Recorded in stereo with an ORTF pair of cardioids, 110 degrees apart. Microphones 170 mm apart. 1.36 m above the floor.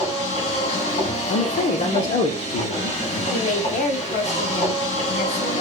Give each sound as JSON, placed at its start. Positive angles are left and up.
{"t": 0.0, "sound": "a machine running", "azimuth_deg": 45, "distance_m": 1.6}
{"t": 1.3, "sound": "a man speaking", "azimuth_deg": 45, "distance_m": 0.8}
{"t": 3.3, "sound": "a woman speaking", "azimuth_deg": 50, "distance_m": 1.3}